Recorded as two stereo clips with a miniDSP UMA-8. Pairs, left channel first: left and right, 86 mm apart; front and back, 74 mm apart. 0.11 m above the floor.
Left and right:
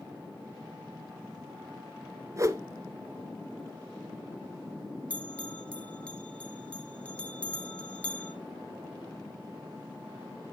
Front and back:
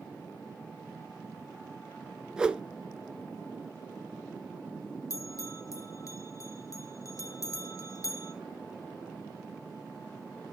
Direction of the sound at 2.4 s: 110° right.